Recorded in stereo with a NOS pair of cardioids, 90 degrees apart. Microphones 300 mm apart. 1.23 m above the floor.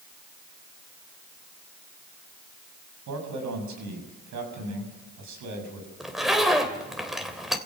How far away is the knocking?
I don't hear knocking.